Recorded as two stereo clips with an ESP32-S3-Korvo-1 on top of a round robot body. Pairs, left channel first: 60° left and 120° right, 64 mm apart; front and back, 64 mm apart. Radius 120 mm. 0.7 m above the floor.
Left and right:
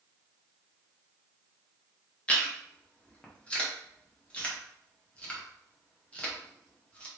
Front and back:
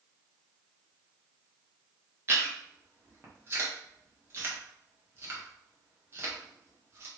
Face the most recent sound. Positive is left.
turn(degrees=130)